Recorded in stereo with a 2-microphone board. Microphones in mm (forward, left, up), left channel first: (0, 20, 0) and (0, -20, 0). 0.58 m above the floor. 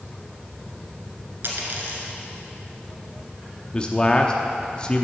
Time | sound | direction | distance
1.4 | a dropped coin | 55° right (ahead or behind) | 1.9 m
3.7 | a man speaking | 25° left (ahead or behind) | 0.7 m